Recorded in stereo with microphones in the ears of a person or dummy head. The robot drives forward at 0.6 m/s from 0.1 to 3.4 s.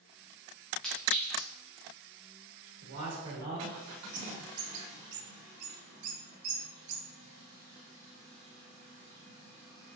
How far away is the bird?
About 1.2 m.